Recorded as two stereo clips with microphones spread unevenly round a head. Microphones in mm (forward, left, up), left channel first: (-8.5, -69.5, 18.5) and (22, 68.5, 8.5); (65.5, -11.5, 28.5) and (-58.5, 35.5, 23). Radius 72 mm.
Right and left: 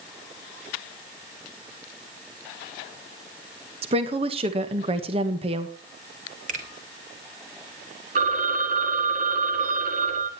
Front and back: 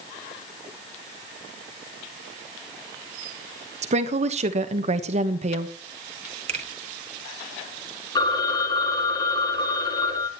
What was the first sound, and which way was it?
A woman speaking, 125° left.